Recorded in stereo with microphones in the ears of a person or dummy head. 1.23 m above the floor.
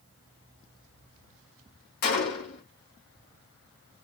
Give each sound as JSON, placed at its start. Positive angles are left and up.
{"t": 2.0, "sound": "a gunshot", "side_deg": 50, "distance_m": 1.4}